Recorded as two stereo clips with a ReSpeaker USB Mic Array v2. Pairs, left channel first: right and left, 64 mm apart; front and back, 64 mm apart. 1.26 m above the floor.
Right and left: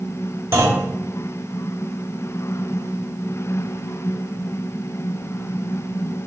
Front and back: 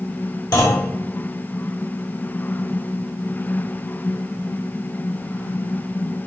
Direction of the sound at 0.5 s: 30° left.